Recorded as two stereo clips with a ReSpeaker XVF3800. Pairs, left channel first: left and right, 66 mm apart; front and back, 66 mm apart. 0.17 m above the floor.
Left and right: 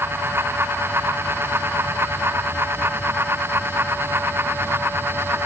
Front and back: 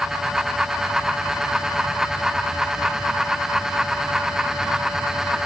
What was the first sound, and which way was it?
Only background noise.